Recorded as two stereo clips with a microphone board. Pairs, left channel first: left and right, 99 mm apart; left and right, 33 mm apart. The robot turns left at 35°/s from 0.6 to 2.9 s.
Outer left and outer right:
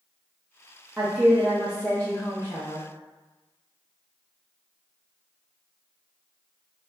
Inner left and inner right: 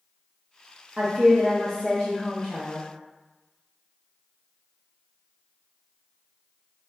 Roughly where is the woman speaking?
Behind.